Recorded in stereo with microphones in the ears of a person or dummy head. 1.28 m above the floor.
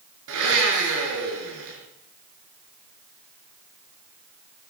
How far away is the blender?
About 4.5 m.